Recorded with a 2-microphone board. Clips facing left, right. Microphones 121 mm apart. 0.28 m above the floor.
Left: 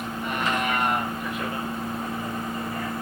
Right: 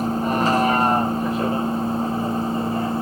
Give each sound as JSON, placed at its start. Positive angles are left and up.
{"t": 0.0, "sound": "a vehicle", "side_deg": -35}